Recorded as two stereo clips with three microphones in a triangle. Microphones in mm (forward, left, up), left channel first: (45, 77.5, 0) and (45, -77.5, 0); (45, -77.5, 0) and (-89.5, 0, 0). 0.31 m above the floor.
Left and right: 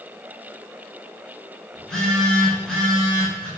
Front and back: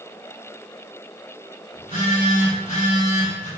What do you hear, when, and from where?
1.8 s a phone buzzing: 5° left, 1.5 m